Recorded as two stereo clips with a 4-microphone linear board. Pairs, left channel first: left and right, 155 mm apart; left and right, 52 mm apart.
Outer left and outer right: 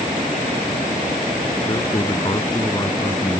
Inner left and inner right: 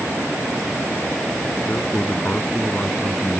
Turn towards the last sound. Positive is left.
turn(degrees=20)  # may be behind; listen again after turning